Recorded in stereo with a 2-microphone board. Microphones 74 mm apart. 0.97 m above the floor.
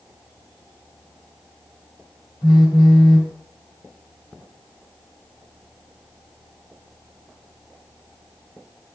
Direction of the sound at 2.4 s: 70° left (ahead or behind).